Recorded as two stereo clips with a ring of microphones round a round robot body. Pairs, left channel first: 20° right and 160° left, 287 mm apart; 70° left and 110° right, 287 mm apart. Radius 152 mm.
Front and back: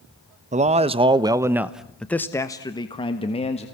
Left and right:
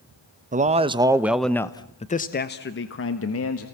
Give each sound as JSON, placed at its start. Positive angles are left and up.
{"t": 0.5, "sound": "a man speaking", "azimuth_deg": -155, "distance_m": 1.2}